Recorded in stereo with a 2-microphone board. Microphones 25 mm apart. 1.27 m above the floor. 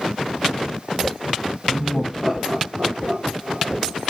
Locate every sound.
1.7 s laughter: 20° left (ahead or behind), 1.1 m; by 4.0 s 70° right (ahead or behind), 2 m